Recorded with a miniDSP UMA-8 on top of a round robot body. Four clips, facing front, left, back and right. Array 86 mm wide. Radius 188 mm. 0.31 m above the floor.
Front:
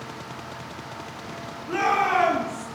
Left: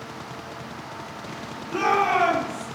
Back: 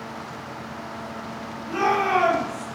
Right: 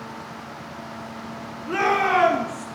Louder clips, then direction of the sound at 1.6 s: Right 1 dB, even; 80° right.